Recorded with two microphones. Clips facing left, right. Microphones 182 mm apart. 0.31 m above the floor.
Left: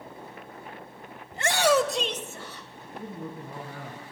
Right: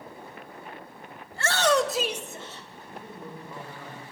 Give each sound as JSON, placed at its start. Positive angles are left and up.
{"t": 1.3, "sound": "a shout", "side_deg": 20, "distance_m": 1.1}
{"t": 3.0, "sound": "a man speaking", "side_deg": 55, "distance_m": 3.0}